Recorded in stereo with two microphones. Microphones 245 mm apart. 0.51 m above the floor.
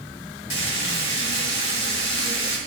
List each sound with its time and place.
0.5 s frying: 50° left (ahead or behind), 2.5 m